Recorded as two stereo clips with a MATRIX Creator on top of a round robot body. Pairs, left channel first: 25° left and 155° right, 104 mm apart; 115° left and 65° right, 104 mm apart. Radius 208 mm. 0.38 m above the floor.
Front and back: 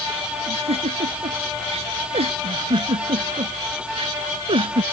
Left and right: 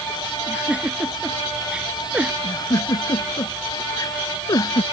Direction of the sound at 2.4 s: 170° left.